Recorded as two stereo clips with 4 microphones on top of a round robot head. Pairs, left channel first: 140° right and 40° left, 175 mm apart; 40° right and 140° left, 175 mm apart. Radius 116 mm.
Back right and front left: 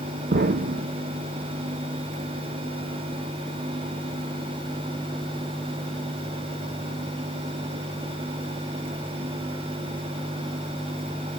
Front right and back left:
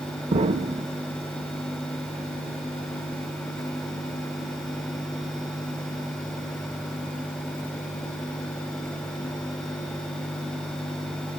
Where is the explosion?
80° left, 0.6 m.